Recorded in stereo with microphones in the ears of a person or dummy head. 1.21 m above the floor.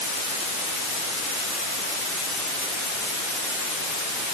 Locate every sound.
Only background noise.